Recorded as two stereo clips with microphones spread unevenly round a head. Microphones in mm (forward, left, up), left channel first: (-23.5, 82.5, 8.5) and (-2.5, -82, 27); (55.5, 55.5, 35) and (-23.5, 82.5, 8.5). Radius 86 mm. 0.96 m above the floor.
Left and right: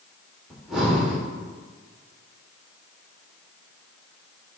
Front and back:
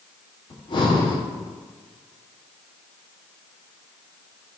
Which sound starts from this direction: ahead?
Breathing, at 0.5 s.